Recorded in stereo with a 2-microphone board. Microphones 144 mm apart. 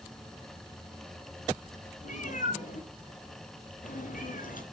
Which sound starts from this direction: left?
A cat meowing, at 2.0 s.